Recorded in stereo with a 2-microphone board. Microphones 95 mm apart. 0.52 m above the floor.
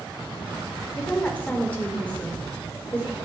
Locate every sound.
1.0 s a woman speaking: 15° left (ahead or behind), 1.5 m